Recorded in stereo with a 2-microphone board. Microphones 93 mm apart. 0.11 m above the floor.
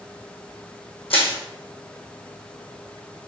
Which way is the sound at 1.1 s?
75° left (ahead or behind).